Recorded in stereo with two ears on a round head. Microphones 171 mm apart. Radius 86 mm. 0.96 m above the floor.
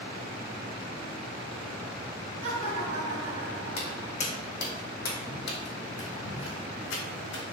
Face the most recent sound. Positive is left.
turn(degrees=65)  # may be behind; listen again after turning